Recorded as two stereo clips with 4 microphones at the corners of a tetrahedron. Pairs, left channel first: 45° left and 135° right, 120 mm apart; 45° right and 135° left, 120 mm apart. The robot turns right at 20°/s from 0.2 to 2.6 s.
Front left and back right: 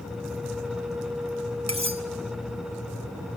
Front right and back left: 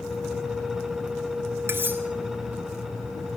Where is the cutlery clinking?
160° right, 1.2 m; by 2.0 s 150° right, 1.2 m.